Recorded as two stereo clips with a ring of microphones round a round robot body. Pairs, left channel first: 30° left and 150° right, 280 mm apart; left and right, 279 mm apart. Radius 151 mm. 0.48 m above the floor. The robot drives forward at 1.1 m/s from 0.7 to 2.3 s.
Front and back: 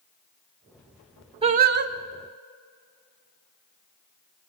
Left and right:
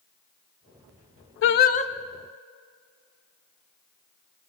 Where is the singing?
140° left, 0.6 m; by 1.9 s 160° left, 1.1 m.